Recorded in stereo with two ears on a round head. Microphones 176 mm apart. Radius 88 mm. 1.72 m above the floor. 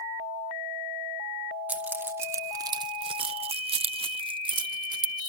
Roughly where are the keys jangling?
Centre.